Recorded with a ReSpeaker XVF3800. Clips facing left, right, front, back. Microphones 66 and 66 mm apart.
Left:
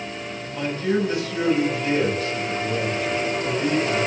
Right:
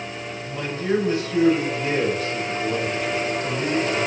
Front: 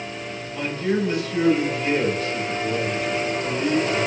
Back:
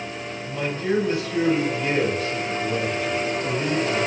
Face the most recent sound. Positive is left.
turn(degrees=-125)